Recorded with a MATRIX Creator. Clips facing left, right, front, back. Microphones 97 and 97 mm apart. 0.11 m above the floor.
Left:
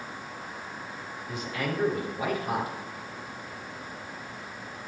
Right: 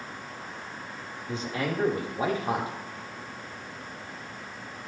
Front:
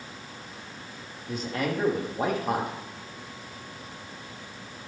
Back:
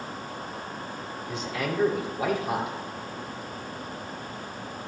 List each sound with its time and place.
1.3 s a man speaking: 35° right, 5 m